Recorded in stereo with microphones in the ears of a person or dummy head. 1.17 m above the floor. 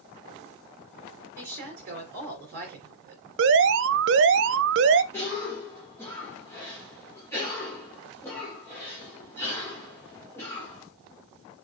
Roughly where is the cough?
Centre.